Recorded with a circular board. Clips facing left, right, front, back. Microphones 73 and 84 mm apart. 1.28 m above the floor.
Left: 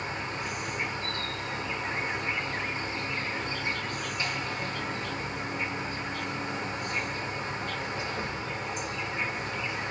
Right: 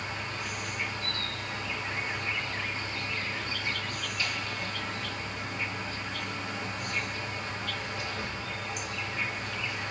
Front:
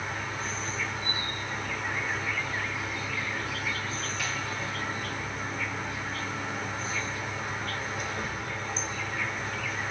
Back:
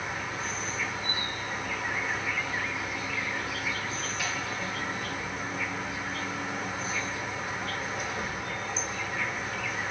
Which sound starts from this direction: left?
An insect, at 0.0 s.